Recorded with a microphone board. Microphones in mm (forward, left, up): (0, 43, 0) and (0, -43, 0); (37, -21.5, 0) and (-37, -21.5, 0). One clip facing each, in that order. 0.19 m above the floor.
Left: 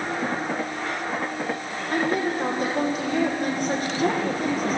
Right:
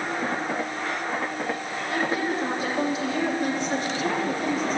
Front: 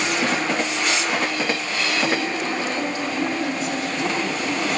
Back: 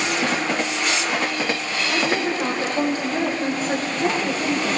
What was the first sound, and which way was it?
A woman speaking, 130° left.